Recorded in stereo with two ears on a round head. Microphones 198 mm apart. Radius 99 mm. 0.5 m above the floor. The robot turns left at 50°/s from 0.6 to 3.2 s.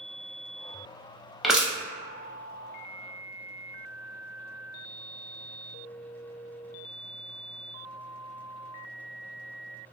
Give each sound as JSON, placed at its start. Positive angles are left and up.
{"t": 1.4, "sound": "crushing", "side_deg": 0, "distance_m": 0.5}